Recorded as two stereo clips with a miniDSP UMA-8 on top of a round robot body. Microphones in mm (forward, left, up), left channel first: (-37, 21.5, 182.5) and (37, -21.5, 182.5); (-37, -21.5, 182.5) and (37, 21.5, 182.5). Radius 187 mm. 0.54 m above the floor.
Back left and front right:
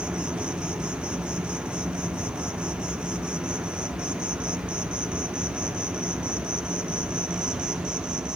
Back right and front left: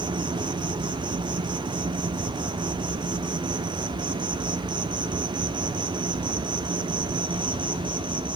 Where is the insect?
50° left, 0.9 m.